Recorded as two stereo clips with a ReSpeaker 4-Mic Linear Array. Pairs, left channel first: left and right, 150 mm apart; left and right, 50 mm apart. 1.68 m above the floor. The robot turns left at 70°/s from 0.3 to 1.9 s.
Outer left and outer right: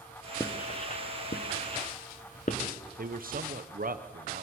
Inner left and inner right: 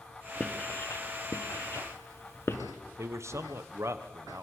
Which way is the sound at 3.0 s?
65° right (ahead or behind).